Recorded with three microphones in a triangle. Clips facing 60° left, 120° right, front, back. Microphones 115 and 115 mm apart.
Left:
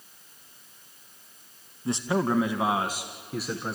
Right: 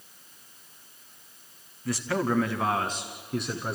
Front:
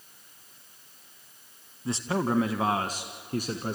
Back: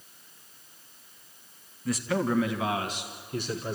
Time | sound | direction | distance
1.9 | a man speaking | 30° left | 1.1 m